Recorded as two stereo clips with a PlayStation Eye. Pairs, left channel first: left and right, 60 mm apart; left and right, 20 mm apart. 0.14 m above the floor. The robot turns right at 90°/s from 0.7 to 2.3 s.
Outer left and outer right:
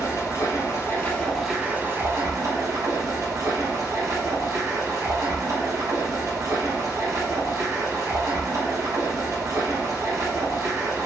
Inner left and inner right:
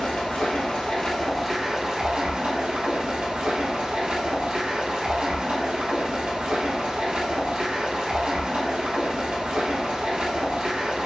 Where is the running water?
120° left, 1.8 m; by 11.1 s 95° right, 1.8 m.